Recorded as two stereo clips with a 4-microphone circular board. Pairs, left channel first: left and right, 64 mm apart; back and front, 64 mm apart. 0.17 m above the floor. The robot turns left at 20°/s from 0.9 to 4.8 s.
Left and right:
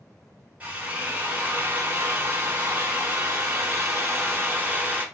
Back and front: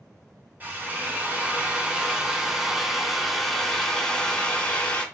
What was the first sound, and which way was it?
A drill, 45° right.